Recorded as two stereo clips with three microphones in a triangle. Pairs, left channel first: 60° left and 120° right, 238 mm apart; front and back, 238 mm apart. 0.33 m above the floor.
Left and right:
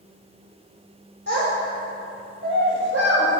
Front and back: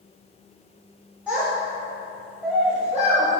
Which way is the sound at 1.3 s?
100° right.